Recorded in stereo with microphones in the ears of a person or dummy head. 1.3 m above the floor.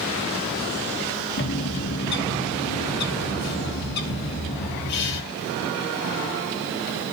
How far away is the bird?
About 1.6 m.